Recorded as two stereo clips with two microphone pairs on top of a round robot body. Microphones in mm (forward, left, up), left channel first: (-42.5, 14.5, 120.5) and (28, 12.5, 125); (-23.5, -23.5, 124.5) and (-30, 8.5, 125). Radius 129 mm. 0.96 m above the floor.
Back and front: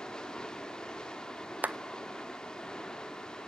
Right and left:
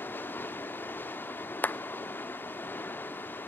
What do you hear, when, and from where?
0.0 s running water: 100° right, 1.2 m
1.6 s a clap: 65° right, 0.9 m